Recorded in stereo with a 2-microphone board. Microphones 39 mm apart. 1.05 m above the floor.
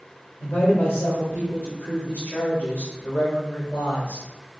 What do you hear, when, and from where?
0.4 s a woman speaking: 90° left, 3.5 m